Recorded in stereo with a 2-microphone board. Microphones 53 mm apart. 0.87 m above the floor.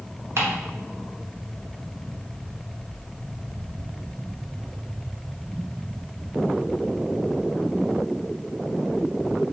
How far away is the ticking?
About 1.4 m.